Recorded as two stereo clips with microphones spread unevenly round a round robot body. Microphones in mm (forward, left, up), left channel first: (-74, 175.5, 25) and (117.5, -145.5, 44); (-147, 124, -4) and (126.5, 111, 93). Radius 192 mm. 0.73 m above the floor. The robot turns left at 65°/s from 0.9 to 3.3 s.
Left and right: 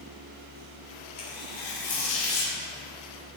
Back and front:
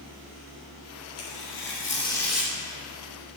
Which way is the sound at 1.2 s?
170° left.